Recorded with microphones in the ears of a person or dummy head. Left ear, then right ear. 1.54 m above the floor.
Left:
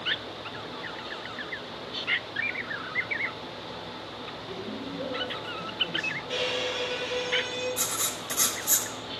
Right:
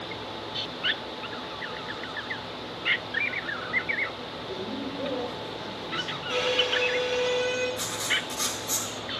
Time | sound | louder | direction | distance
4.5 | a man speaking | right 4 dB | 30° left (ahead or behind) | 5.5 m
6.3 | a violin | right 7 dB | 20° right (ahead or behind) | 7 m
7.8 | writing | right 3 dB | 70° left (ahead or behind) | 1.7 m